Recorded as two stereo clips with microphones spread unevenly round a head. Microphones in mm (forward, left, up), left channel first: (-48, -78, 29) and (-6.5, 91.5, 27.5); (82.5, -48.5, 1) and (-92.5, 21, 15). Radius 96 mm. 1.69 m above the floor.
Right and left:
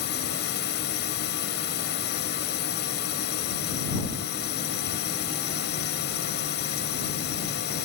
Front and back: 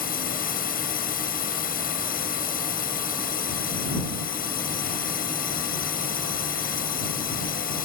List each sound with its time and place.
0.0 s a drone: 65° right